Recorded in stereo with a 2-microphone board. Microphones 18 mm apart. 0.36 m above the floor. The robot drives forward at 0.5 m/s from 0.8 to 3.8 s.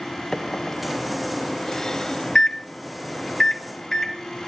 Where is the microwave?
25° left (ahead or behind), 0.9 m; by 4.2 s 20° left (ahead or behind), 1.2 m.